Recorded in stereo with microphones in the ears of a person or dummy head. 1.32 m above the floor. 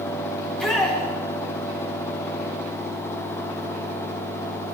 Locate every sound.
0.4 s a shout: centre (ahead or behind), 3 m